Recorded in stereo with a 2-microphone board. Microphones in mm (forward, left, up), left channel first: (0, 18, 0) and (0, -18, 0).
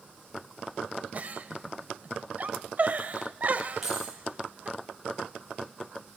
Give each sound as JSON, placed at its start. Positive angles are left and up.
{"t": 1.1, "sound": "a giggle", "side_deg": -50, "distance_m": 1.2}
{"t": 3.8, "sound": "keys jangling", "side_deg": -15, "distance_m": 7.0}